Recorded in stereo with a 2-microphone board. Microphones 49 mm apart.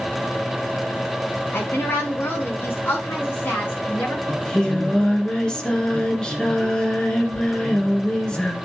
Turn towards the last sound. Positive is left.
turn(degrees=20)  # may be behind; listen again after turning